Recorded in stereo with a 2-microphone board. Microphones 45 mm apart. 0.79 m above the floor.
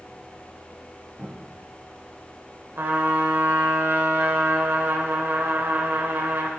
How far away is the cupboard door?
About 3.5 m.